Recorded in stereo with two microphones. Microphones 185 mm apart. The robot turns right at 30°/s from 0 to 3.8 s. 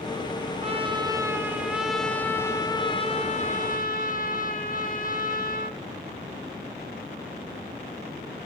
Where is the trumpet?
40° right, 1.4 m; by 5.8 s 55° left, 1.4 m.